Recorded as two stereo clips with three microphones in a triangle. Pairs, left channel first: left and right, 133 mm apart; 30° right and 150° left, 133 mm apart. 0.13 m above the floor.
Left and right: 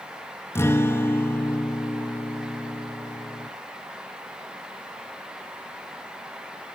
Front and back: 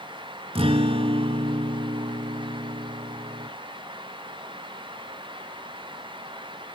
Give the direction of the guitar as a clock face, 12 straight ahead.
7 o'clock.